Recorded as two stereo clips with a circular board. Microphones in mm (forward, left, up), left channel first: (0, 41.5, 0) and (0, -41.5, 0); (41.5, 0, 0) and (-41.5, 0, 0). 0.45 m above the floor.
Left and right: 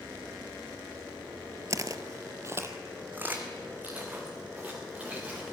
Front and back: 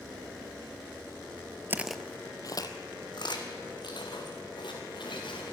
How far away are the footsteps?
About 0.6 m.